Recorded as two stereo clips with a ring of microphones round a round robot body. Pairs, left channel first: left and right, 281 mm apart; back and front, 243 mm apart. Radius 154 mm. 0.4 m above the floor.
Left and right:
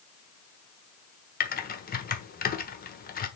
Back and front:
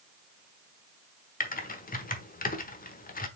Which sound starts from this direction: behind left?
Typing on a keyboard, at 1.4 s.